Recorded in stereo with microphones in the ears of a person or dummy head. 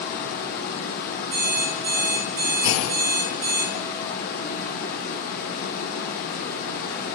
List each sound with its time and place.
0.0 s running water: 50° left (ahead or behind), 1.2 m
1.3 s an alarm clock: 70° right (ahead or behind), 4.5 m
2.6 s a clunk: 80° left, 0.7 m